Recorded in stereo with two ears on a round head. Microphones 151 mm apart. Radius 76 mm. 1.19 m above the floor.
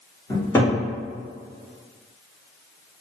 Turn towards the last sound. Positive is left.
turn(degrees=15)  # may be behind; listen again after turning